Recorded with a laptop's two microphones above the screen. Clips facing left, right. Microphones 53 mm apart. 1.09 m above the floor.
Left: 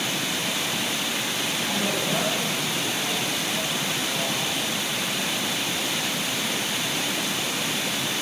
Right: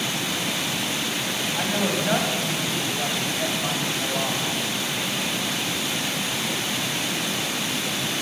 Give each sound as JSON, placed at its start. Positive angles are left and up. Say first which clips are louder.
{"t": 1.6, "sound": "a woman speaking", "louder": "right 3 dB", "side_deg": -90, "distance_m": 6.0}